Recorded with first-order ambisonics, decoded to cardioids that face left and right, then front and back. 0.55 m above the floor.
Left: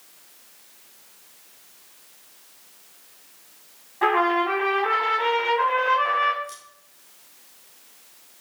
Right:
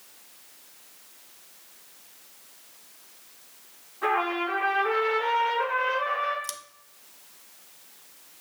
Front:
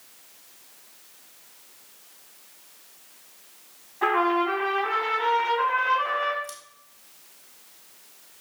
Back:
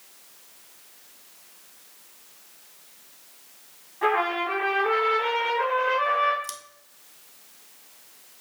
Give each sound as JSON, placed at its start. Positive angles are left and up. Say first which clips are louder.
{"t": 4.0, "sound": "a trumpet", "louder": "left 6 dB, front 1 dB", "azimuth_deg": 80, "distance_m": 3.5}
{"t": 6.4, "sound": "scissors", "louder": "right 1 dB, back 2 dB", "azimuth_deg": -115, "distance_m": 0.9}